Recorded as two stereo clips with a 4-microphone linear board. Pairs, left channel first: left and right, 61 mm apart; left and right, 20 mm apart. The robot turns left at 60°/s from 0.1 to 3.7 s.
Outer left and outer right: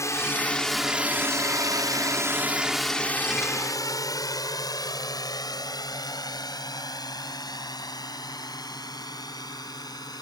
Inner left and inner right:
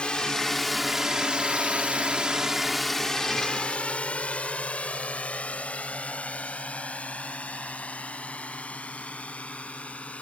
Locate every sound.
0.0 s a drone: 50° left (ahead or behind); by 10.2 s 80° left